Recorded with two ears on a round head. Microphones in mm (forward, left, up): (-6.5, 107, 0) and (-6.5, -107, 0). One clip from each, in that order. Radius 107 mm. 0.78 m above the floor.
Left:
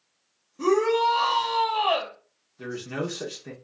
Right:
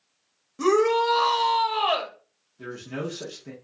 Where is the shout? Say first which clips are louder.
Right 1 dB; 50° right (ahead or behind), 1.0 m.